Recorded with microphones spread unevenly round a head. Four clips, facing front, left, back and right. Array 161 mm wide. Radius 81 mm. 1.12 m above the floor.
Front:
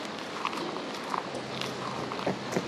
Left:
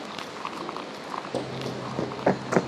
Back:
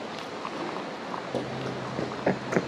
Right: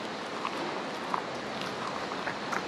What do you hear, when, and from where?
1.3 s running footsteps: 125° left; by 2.7 s 105° left